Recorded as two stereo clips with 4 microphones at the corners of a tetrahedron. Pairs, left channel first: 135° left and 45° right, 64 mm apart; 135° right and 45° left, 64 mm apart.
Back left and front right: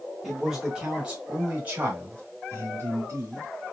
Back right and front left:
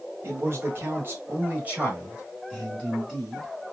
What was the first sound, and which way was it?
A man speaking, 40° left.